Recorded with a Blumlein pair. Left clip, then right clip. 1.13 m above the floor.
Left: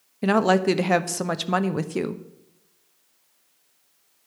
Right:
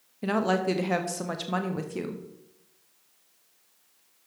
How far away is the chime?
No chime in this recording.